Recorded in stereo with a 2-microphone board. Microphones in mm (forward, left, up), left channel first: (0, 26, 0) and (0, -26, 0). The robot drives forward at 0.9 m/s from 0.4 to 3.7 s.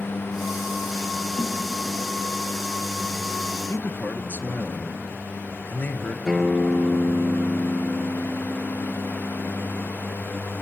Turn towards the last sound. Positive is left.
turn(degrees=10)  # may be behind; listen again after turning